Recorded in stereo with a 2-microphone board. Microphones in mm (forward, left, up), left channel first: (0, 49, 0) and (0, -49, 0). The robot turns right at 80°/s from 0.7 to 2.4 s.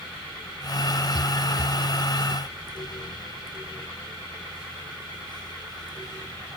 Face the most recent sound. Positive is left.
No sound to turn to.